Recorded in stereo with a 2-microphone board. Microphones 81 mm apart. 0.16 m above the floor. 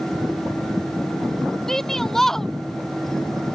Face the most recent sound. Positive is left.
turn(degrees=5)  # may be behind; listen again after turning